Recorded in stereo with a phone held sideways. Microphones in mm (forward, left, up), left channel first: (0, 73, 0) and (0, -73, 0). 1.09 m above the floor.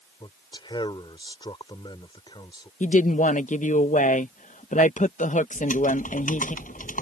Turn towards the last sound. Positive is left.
turn(degrees=65)  # may be behind; listen again after turning